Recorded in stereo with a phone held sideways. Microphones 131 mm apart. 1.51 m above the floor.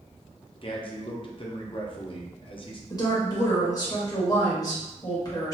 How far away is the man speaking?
About 0.6 m.